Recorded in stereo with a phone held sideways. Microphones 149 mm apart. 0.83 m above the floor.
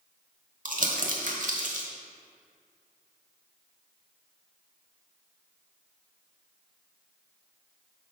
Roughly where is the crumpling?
Right.